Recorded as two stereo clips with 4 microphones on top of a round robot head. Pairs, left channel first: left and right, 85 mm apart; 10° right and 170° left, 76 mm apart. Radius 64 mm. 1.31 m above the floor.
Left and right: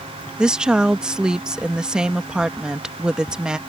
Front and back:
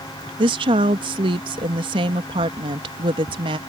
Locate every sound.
0.4 s a woman speaking: 170° right